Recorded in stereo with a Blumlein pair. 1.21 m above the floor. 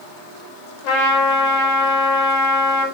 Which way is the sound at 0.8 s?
40° left.